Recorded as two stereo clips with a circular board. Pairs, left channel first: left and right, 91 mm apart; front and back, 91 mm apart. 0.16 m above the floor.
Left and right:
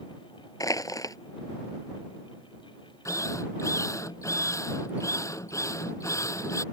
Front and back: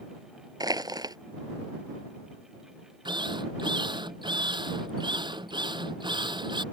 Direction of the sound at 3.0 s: 145° left.